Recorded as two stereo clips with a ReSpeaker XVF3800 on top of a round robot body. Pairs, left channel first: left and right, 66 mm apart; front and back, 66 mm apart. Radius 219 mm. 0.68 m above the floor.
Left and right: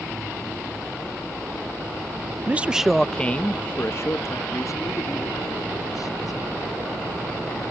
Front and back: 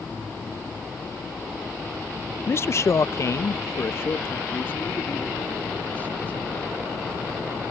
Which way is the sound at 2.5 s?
35° right.